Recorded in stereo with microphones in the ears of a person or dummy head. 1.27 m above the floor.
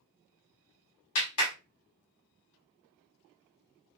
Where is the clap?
80° left, 1.9 m.